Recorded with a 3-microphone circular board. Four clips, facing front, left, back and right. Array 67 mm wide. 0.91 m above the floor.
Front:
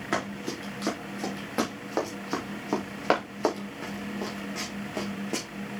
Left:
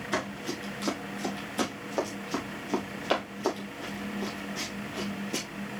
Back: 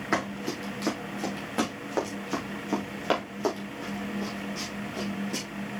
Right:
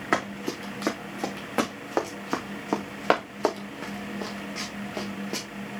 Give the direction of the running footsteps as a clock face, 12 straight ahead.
3 o'clock.